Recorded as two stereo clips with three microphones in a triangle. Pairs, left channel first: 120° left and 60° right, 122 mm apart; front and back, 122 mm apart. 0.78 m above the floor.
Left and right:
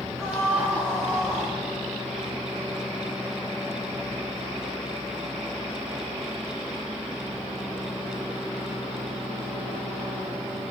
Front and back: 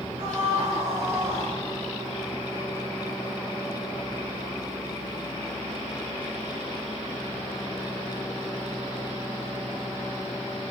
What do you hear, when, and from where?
0.2 s a scream: 155° right, 3.5 m; by 1.5 s 160° right, 5 m